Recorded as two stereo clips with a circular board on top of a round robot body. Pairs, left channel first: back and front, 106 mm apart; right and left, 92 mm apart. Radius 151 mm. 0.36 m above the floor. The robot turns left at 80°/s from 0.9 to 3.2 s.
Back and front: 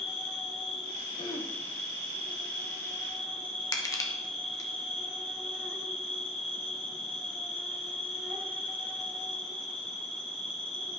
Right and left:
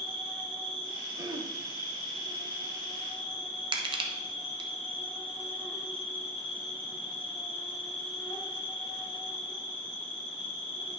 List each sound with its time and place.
0.0 s an insect: 90° left, 2.0 m; by 11.0 s 95° right, 2.0 m
1.2 s throat clearing: 145° left, 1.3 m; by 1.5 s 115° left, 1.3 m
3.7 s crushing: 120° left, 0.9 m